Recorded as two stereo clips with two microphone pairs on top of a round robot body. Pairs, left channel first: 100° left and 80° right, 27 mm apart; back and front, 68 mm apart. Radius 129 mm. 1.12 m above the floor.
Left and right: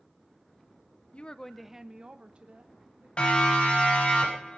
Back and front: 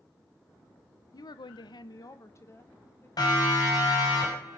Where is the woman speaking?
140° left, 0.8 m; by 3.1 s 120° right, 2.5 m.